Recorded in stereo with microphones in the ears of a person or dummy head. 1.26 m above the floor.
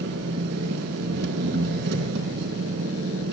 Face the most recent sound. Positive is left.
turn(degrees=-70)  # may be behind; listen again after turning